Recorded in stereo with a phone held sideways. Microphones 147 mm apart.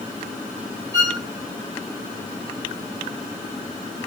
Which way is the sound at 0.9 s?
25° right (ahead or behind).